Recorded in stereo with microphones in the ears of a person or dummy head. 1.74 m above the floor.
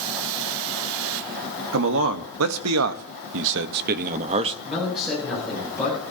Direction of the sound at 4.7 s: Centre (ahead or behind).